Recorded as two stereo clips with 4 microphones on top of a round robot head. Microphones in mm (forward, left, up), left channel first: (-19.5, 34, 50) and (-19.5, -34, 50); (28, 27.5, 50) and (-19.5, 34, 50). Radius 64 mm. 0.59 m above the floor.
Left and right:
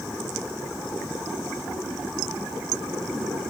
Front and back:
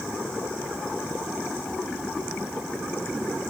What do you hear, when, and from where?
Only background noise.